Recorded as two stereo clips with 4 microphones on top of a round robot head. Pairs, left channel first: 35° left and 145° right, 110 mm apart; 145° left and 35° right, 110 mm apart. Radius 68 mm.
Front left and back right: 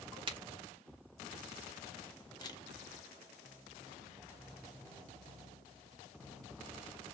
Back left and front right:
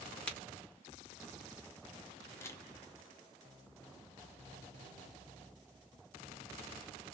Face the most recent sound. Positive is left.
turn(degrees=80)